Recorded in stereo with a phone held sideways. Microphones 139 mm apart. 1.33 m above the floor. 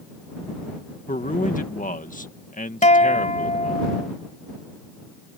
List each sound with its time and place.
1.1 s a man speaking: 75° left (ahead or behind)
2.8 s a guitar: 55° left (ahead or behind)